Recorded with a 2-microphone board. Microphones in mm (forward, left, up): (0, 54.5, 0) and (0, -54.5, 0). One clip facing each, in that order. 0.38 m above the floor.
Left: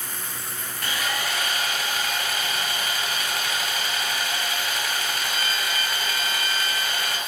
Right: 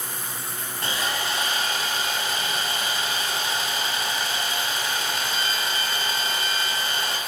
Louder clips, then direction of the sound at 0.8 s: Even; 30° right (ahead or behind).